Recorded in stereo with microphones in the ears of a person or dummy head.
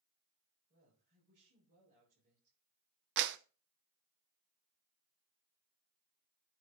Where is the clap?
65° right (ahead or behind), 0.7 m.